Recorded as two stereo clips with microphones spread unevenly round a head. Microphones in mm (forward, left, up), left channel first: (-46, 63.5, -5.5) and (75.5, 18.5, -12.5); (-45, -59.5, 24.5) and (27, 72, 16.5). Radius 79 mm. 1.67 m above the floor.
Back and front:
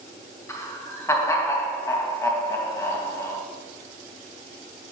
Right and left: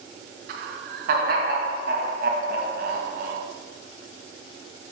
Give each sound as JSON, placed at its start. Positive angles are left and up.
{"t": 0.5, "sound": "laughter", "azimuth_deg": 90, "distance_m": 2.5}